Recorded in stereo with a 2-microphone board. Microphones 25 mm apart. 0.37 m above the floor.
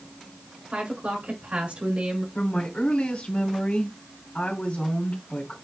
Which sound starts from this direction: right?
A woman speaking, at 0.7 s.